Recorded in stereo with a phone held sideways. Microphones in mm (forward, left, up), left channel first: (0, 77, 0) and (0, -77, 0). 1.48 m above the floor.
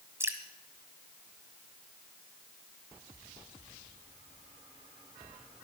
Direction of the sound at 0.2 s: 15° right (ahead or behind).